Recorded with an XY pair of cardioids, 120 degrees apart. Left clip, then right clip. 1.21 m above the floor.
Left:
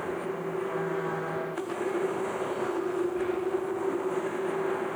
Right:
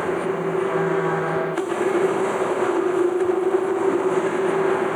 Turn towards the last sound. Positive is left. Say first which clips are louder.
# right 9 dB
turn(degrees=-50)